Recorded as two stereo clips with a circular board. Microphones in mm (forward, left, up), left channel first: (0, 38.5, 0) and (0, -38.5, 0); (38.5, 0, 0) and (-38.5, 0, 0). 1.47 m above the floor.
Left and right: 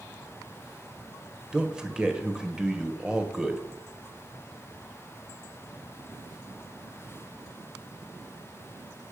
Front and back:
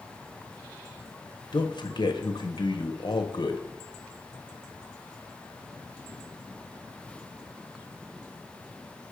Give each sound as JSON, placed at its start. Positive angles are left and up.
{"t": 1.5, "sound": "a man speaking", "azimuth_deg": -10, "distance_m": 1.1}